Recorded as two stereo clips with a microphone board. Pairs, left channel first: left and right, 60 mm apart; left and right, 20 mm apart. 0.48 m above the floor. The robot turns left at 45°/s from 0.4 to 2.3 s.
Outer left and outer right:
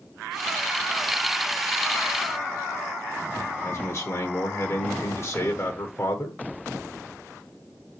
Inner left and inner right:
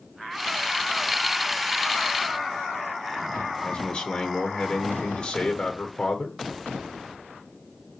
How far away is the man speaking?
About 1.2 m.